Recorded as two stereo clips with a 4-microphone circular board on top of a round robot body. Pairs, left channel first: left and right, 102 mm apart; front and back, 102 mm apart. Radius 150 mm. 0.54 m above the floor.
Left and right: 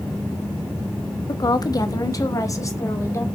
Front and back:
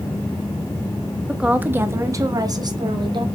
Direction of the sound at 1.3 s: 100° left.